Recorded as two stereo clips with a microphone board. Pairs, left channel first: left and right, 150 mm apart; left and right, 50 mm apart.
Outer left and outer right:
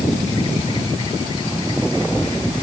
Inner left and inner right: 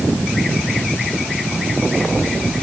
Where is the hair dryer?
No hair dryer in this recording.